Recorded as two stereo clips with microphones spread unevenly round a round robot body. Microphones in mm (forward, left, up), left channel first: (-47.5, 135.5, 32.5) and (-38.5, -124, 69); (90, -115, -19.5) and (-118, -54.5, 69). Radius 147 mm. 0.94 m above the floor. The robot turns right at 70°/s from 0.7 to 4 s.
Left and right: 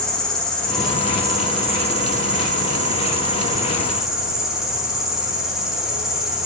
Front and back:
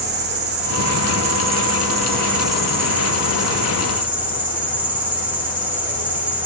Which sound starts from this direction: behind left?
An insect, at 0.0 s.